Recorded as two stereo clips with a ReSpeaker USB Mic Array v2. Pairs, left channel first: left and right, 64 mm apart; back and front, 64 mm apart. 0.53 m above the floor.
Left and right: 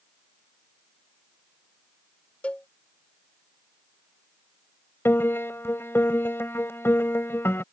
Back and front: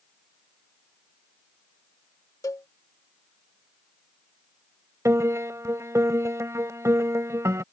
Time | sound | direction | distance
2.4 | a cowbell | 155° left | ?
5.0 | a piano | 40° left | ?